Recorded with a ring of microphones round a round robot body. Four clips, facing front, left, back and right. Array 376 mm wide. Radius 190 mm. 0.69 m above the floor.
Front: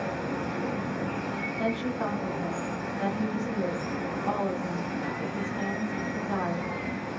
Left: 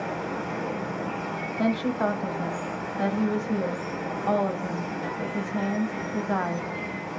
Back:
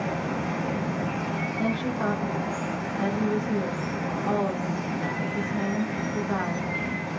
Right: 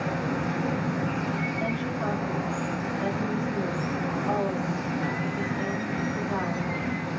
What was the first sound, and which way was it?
Running water, 120° right.